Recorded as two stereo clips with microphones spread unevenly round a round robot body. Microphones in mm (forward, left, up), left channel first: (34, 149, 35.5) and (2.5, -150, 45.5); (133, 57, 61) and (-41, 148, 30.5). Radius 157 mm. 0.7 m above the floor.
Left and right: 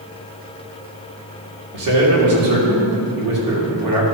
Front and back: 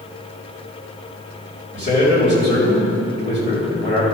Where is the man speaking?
90° right, 2.5 m.